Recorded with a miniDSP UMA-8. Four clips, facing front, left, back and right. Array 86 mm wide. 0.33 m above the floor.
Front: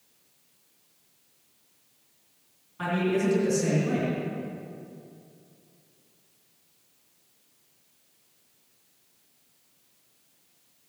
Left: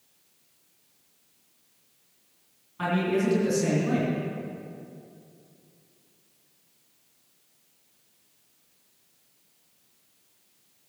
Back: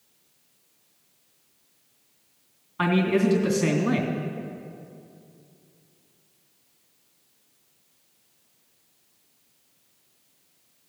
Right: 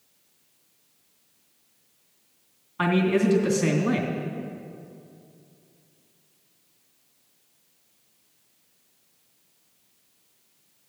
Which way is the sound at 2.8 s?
135° right.